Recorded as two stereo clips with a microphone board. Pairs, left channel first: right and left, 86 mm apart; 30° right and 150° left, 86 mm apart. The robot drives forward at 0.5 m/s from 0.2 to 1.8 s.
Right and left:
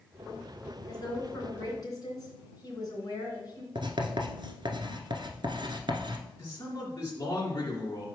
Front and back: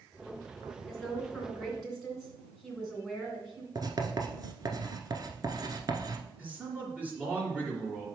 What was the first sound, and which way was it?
A woman speaking, 115° right.